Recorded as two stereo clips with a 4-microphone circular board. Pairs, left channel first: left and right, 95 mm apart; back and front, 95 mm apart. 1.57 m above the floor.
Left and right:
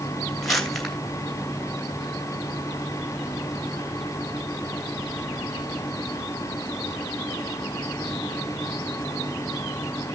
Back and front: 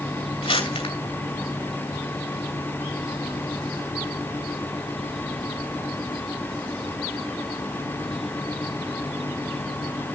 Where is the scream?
No scream in this recording.